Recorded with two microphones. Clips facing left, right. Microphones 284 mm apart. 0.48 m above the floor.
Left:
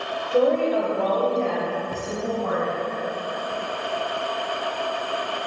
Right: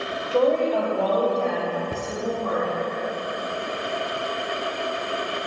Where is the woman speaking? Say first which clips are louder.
Left 1 dB; 15° left (ahead or behind), 1.9 m; by 2.8 s 35° right (ahead or behind), 3.5 m.